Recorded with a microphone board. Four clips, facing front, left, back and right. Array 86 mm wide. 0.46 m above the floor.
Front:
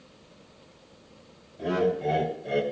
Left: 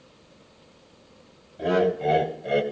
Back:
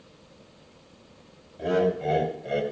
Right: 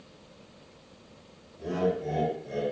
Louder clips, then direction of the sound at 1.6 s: Left 6 dB, back 2 dB; 105° left.